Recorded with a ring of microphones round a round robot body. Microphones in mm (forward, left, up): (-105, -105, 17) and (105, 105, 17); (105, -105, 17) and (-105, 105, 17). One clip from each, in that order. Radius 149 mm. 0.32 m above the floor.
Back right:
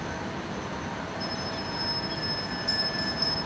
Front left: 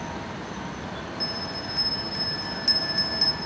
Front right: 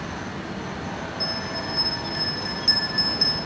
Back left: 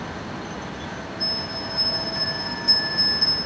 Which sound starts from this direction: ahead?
A bell, at 1.2 s.